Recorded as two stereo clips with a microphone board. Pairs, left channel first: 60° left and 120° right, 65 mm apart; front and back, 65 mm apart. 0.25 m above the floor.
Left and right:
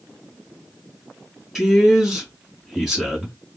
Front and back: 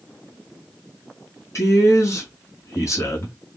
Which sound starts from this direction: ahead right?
A man speaking, at 1.6 s.